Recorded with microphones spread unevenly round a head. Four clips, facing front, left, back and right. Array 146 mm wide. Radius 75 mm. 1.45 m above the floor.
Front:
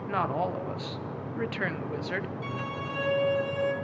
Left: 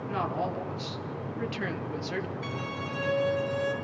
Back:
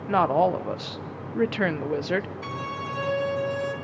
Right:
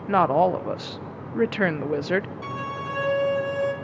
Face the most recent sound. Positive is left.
turn(degrees=-95)